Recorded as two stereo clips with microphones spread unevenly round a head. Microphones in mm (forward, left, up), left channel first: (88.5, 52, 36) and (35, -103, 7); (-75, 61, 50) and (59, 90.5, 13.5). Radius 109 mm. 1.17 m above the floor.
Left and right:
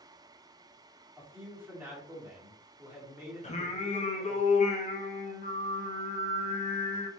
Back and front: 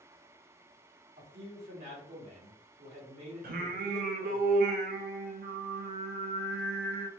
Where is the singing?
25° left, 0.8 m.